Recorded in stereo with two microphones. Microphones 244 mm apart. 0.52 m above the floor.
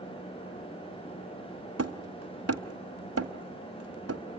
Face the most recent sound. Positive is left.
turn(degrees=-80)